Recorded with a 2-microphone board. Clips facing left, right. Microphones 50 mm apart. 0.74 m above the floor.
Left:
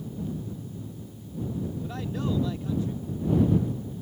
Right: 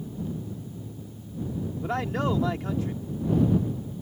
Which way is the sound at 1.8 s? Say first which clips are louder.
Right 8 dB; 70° right (ahead or behind).